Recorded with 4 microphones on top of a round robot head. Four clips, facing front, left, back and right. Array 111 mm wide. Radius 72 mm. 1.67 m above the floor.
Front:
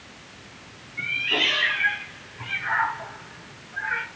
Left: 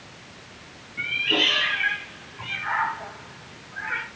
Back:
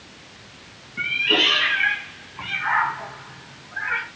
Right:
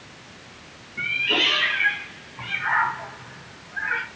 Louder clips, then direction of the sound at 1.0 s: Even, back 5 dB; 155° right.